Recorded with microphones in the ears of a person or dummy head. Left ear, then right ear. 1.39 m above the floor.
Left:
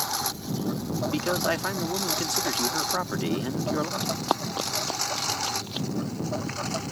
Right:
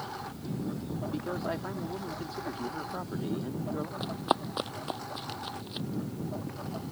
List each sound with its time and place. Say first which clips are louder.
0.0 s a lawn mower: left 10 dB; 75° left (ahead or behind); by 6.9 s 70° left (ahead or behind)
1.1 s a man speaking: left 9 dB; 60° left (ahead or behind)
4.0 s running footsteps: left 3 dB; 15° right (ahead or behind); by 5.9 s 10° left (ahead or behind)